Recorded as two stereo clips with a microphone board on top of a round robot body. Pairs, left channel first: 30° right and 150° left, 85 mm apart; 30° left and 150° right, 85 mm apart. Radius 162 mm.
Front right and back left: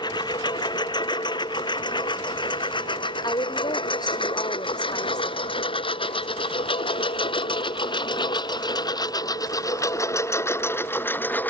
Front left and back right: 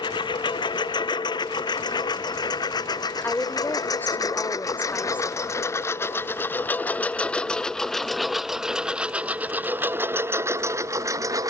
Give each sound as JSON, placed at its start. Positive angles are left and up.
{"t": 0.0, "sound": "a lawn mower", "azimuth_deg": 5}
{"t": 3.2, "sound": "a woman speaking", "azimuth_deg": -30}